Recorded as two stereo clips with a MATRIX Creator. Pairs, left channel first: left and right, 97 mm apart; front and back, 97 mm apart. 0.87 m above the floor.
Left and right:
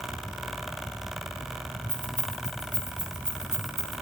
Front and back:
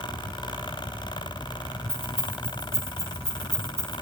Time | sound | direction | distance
1.9 | keys jangling | 160° right | 7.5 m